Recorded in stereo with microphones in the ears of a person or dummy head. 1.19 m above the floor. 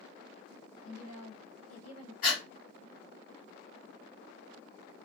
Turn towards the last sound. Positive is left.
turn(degrees=50)  # may be behind; listen again after turning